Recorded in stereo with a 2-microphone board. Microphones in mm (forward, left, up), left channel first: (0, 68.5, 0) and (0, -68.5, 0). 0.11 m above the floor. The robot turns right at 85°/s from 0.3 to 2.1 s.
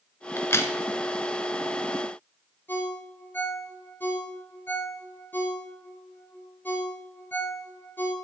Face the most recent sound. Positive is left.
turn(degrees=15)  # may be behind; listen again after turning